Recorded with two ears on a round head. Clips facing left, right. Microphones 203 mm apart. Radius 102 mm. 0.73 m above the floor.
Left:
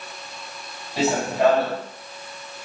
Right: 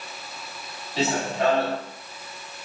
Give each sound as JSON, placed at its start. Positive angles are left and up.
{"t": 1.0, "sound": "running footsteps", "side_deg": 10, "distance_m": 5.5}